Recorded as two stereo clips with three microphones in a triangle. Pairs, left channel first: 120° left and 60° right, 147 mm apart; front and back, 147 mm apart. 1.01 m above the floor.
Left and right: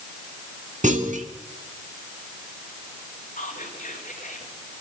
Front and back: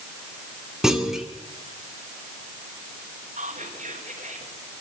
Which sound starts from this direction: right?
A clunk, at 0.8 s.